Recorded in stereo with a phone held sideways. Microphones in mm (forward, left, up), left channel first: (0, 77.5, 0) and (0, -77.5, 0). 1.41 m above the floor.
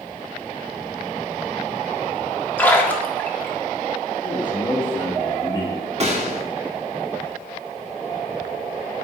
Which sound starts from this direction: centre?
A splash, at 2.6 s.